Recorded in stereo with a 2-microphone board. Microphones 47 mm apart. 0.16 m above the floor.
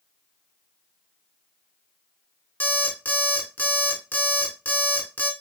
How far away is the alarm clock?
About 0.8 m.